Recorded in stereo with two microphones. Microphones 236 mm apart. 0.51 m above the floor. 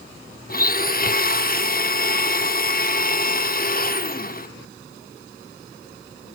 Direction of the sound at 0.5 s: 40° left (ahead or behind).